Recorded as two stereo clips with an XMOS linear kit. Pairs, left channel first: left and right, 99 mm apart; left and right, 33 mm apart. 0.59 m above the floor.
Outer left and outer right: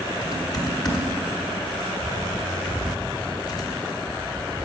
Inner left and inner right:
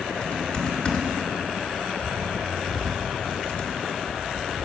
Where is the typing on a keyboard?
45° left (ahead or behind), 1.6 m.